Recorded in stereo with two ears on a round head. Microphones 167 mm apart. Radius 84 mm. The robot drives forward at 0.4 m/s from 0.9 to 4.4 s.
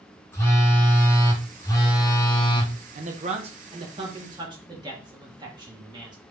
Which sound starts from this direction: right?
A man speaking, at 3.0 s.